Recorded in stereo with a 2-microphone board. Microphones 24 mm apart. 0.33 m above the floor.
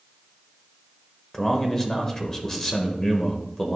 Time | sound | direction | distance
1.3 | a man speaking | 20° left (ahead or behind) | 1.3 m